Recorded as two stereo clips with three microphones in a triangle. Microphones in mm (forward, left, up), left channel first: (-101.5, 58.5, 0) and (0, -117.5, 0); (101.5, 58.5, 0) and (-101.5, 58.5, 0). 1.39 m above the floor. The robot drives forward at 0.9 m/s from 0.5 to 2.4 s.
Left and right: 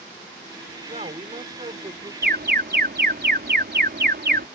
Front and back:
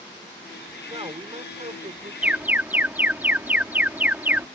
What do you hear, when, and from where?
0.9 s a man speaking: 115° right; by 2.1 s 125° right
2.2 s an alarm: 95° right; by 4.5 s 100° right